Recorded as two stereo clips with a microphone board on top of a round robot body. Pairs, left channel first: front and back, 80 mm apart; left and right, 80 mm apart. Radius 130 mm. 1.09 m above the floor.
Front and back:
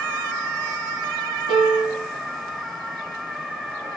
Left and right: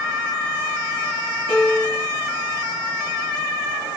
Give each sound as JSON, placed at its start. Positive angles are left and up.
{"t": 1.5, "sound": "a piano", "azimuth_deg": -155, "distance_m": 3.5}